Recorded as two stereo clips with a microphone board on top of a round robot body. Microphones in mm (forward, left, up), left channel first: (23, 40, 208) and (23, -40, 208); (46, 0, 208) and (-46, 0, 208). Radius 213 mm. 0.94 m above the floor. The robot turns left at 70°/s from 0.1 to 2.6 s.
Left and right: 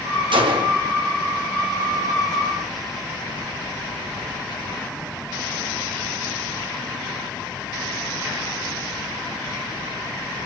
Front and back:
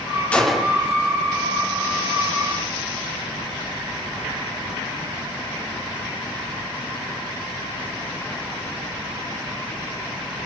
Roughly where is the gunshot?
Right.